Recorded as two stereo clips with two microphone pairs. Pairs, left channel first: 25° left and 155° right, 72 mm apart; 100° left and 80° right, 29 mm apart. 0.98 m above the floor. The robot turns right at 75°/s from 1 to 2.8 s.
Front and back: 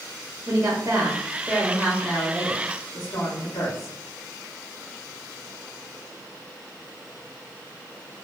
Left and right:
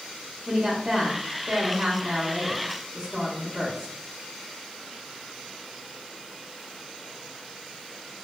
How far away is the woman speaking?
About 1.1 m.